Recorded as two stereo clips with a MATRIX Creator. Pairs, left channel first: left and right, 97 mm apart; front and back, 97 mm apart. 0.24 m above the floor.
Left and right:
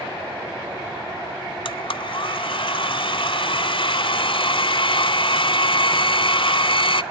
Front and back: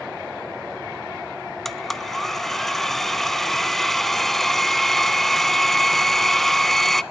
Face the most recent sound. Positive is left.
turn(degrees=85)